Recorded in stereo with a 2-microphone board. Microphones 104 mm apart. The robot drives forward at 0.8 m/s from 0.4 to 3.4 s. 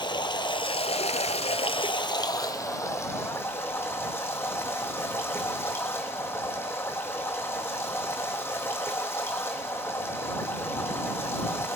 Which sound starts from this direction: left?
Running water, at 0.0 s.